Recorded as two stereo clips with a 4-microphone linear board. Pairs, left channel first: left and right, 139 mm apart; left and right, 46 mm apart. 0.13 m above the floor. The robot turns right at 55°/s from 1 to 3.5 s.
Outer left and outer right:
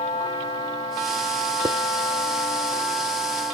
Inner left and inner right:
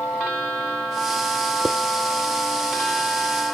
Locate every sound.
1.6 s dishes clattering: 30° right (ahead or behind); by 1.8 s 25° right (ahead or behind)